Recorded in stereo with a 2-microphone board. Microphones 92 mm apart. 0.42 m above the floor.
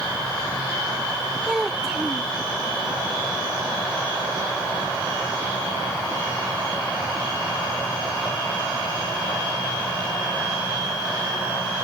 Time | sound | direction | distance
1.5 | a child speaking | 5° right (ahead or behind) | ?